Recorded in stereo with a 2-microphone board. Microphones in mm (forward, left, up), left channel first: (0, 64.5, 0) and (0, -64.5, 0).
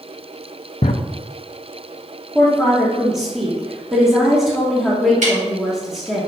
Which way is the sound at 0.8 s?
60° left (ahead or behind).